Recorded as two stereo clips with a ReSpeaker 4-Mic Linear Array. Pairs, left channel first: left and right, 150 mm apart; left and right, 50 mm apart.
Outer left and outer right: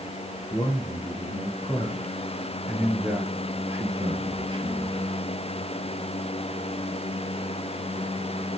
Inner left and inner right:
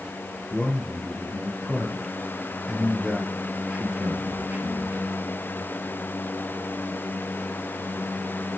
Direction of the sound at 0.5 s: 25° left (ahead or behind).